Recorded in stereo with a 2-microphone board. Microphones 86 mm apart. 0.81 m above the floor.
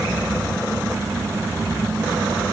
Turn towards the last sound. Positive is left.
No sound to turn to.